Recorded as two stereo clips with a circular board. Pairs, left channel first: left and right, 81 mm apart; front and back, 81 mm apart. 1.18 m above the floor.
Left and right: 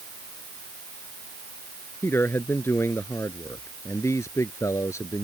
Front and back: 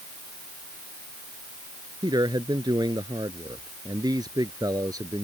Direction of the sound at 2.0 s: 150° left.